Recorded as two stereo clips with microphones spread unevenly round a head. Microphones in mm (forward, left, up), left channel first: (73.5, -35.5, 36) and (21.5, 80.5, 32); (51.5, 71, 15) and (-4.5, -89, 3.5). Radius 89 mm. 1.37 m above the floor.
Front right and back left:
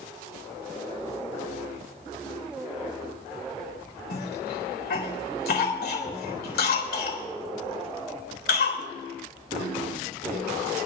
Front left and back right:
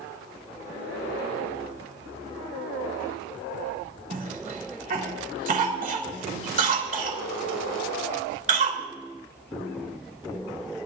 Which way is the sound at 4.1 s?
65° right.